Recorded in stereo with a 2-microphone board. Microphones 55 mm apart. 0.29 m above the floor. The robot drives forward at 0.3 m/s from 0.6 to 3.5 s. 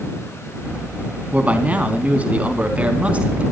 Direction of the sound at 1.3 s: 30° right (ahead or behind).